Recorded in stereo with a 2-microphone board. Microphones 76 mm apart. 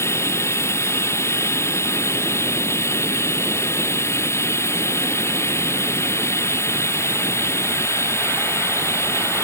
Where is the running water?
35° left (ahead or behind).